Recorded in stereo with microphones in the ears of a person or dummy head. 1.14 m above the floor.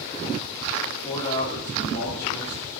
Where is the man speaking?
15° left (ahead or behind), 3.5 m.